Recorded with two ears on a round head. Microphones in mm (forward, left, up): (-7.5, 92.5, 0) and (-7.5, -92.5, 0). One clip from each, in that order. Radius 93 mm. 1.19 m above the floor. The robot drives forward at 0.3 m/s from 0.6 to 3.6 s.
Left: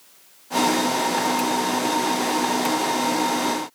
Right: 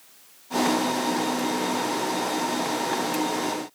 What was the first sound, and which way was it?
Only background noise.